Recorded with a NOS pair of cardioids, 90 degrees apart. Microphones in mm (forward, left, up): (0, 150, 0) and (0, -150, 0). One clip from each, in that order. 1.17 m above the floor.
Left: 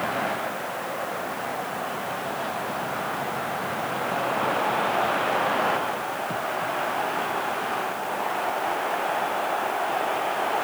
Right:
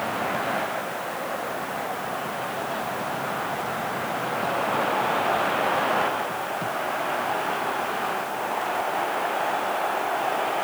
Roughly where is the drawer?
I don't hear a drawer.